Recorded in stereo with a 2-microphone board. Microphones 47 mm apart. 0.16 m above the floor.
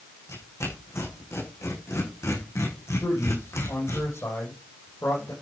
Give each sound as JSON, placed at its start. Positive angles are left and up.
{"t": 0.3, "sound": "tearing paper", "side_deg": 85, "distance_m": 7.0}
{"t": 3.0, "sound": "a man speaking", "side_deg": 70, "distance_m": 7.0}